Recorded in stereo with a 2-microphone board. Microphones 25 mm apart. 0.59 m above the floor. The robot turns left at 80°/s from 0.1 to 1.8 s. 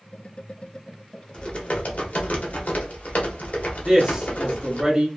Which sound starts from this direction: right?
A man speaking, at 3.8 s.